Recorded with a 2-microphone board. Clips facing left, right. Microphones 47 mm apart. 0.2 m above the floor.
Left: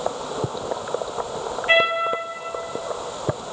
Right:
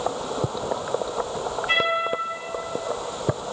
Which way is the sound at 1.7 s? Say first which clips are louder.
Left 5 dB; 40° left (ahead or behind).